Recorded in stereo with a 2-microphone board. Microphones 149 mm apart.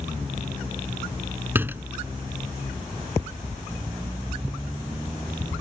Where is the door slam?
15° right (ahead or behind).